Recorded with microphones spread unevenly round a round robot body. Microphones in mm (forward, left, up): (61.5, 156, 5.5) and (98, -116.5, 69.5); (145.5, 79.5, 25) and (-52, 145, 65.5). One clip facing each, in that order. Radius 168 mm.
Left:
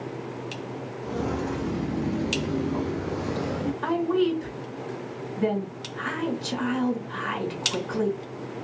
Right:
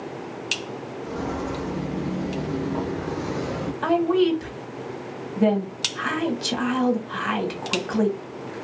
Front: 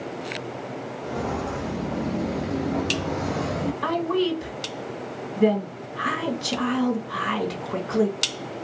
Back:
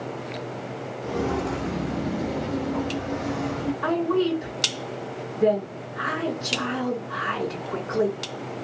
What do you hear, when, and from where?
1.0 s footsteps: 170° left, 1.1 m; by 3.7 s 15° right, 0.9 m
3.8 s a woman speaking: 55° right, 1.5 m